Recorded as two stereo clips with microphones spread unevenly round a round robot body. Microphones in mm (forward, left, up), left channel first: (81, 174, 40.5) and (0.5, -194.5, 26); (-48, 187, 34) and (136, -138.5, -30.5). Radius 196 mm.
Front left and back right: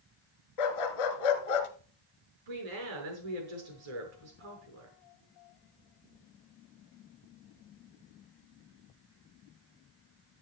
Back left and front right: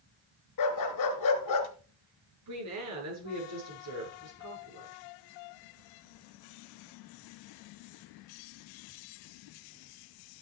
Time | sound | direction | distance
0.6 | a dog barking | 80° left | 1.8 m
2.5 | a woman speaking | 110° right | 5.5 m